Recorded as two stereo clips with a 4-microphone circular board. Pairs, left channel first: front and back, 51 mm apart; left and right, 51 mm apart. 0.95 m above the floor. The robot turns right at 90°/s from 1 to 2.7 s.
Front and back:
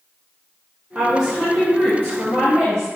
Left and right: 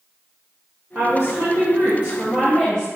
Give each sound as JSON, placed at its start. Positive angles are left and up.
{"t": 0.9, "sound": "a woman speaking", "azimuth_deg": -125, "distance_m": 1.1}